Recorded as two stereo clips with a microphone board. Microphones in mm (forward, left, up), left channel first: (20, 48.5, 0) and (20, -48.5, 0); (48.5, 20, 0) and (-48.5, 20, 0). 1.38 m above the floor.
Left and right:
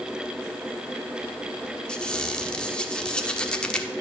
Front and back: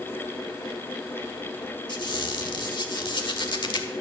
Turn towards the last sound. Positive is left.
turn(degrees=15)